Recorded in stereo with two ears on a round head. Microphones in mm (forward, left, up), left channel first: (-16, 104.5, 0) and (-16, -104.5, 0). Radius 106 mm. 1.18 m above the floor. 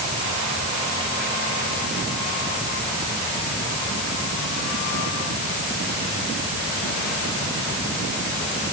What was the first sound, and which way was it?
Only background noise.